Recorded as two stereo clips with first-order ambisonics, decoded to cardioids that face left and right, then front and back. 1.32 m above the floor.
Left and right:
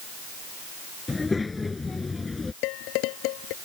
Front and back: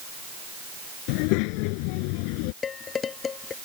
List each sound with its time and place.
1.1 s a child speaking: 10° left
2.6 s dishes clattering: 65° left